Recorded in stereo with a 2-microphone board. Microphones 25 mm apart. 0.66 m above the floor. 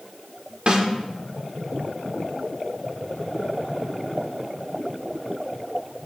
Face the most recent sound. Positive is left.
turn(degrees=-50)  # may be behind; listen again after turning